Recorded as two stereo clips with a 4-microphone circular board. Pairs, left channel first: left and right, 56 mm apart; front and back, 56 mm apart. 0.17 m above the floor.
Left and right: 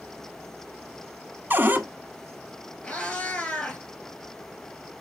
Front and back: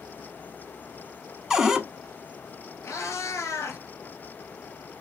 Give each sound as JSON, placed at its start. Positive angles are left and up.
{"t": 1.5, "sound": "a cupboard door", "azimuth_deg": -105, "distance_m": 0.6}
{"t": 2.8, "sound": "a cat meowing", "azimuth_deg": 30, "distance_m": 1.4}